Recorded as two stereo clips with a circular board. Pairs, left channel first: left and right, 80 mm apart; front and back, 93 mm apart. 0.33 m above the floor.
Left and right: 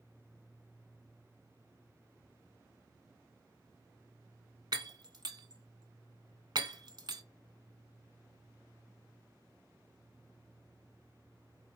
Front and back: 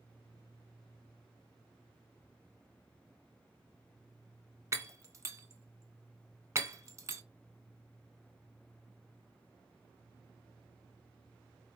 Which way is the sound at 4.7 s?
120° right.